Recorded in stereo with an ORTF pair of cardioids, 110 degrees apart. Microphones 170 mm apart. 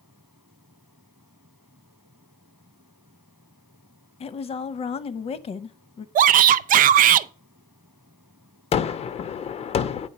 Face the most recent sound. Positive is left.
turn(degrees=40)